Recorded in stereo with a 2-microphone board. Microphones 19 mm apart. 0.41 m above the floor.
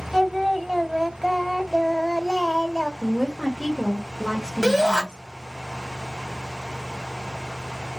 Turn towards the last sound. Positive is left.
turn(degrees=30)  # may be behind; listen again after turning